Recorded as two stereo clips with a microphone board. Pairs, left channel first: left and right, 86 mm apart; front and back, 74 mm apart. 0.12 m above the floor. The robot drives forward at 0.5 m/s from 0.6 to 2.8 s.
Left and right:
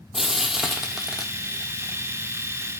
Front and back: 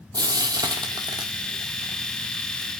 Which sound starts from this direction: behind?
Frying, at 0.1 s.